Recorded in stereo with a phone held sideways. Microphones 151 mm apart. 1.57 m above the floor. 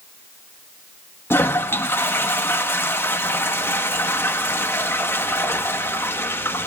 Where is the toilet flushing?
15° left (ahead or behind), 1.1 m.